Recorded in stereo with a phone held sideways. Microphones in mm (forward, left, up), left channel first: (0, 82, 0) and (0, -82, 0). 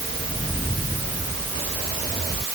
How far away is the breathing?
No breathing in this recording.